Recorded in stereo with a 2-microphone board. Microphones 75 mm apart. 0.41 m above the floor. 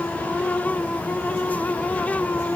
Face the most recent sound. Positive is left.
No sound to turn to.